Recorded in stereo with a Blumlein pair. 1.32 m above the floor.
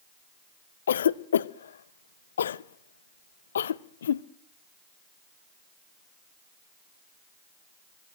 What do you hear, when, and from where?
0.9 s a cough: 65° left, 0.7 m